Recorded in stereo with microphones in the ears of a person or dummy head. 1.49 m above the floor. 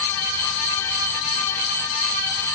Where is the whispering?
No whispering in this recording.